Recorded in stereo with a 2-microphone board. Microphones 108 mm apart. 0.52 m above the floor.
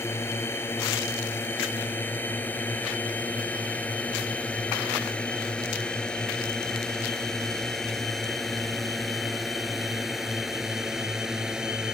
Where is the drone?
25° left (ahead or behind); by 11.9 s 5° right (ahead or behind).